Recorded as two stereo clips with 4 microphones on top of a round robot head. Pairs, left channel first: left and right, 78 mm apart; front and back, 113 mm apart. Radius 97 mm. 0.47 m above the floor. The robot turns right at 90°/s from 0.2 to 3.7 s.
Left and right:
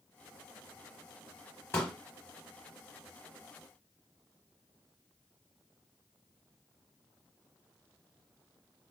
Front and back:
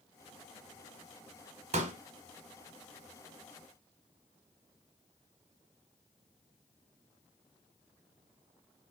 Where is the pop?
155° left, 1.0 m; by 2.0 s 175° left, 1.0 m.